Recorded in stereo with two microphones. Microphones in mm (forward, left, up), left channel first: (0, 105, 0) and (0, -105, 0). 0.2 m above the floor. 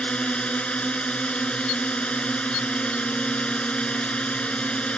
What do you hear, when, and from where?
0.0 s a drone: 5° left (ahead or behind)